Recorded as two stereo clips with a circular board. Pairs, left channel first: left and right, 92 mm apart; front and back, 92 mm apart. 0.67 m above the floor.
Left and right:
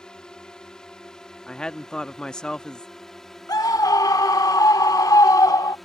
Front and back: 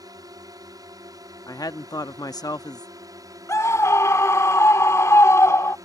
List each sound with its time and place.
0.0 s a drone: 170° left; by 5.9 s straight behind
1.5 s a woman speaking: 15° left
3.5 s a scream: 50° left